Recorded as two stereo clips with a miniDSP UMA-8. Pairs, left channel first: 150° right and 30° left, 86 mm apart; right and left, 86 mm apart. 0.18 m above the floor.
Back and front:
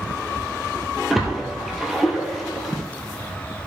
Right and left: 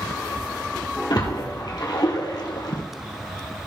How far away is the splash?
About 2 m.